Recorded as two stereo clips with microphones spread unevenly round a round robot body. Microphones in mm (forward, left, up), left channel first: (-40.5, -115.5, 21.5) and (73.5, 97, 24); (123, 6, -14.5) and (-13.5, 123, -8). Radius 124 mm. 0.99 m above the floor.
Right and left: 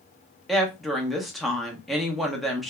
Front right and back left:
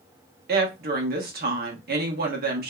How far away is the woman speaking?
About 1.0 m.